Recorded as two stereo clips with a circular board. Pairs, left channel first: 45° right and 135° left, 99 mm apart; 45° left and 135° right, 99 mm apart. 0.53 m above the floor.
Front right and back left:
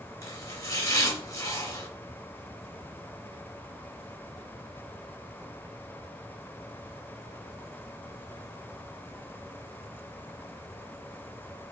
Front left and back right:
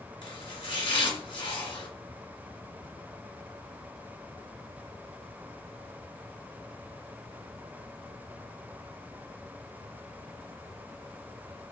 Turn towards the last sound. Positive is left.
turn(degrees=15)